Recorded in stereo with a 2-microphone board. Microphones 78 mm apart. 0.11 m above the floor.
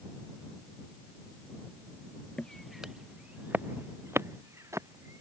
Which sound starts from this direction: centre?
Footsteps, at 2.4 s.